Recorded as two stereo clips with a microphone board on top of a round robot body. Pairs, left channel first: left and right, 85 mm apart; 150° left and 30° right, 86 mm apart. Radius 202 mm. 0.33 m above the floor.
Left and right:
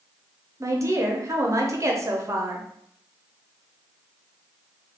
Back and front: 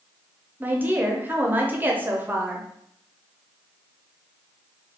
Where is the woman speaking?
85° right, 1.1 m.